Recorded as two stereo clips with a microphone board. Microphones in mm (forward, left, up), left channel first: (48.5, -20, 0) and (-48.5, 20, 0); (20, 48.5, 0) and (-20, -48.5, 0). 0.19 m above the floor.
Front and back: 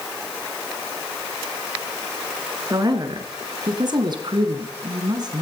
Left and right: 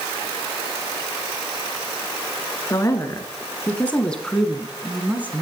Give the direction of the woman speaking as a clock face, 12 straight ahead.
8 o'clock.